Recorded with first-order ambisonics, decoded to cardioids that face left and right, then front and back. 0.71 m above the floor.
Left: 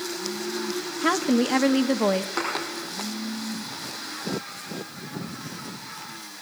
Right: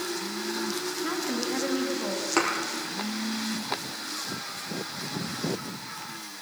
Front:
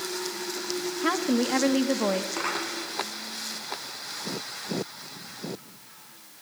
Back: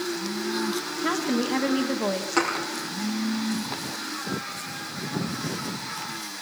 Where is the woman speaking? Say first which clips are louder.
Left 10 dB, front 1 dB; 80° left, 0.9 m.